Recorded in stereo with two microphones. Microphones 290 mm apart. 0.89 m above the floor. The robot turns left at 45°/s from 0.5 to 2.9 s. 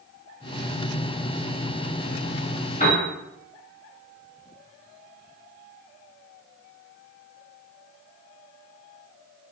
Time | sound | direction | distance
2.8 | a piano | 25° left (ahead or behind) | 0.8 m